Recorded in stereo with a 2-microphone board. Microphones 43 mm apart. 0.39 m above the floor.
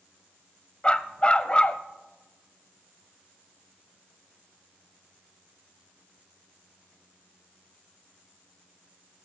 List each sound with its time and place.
0.8 s a dog barking: 25° left (ahead or behind), 0.6 m